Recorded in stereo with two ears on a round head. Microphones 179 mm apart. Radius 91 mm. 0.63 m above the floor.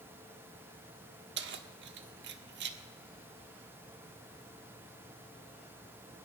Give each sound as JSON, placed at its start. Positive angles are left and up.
{"t": 1.4, "sound": "keys jangling", "side_deg": -55, "distance_m": 1.1}